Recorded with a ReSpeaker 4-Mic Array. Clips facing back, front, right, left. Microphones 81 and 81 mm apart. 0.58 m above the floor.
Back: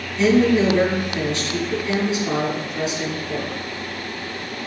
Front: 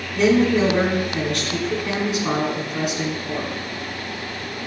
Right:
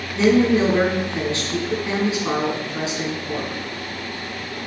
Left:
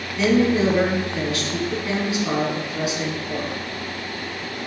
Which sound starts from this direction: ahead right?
A woman speaking, at 0.1 s.